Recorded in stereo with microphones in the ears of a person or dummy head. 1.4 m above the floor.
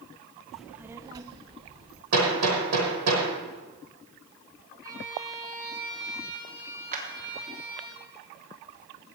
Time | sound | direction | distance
0.5 | a child speaking | centre (ahead or behind) | 0.7 m
2.1 | hammering | 80° right | 6 m
4.8 | a violin | 15° right (ahead or behind) | 5 m
6.9 | a clap | 45° right (ahead or behind) | 3.5 m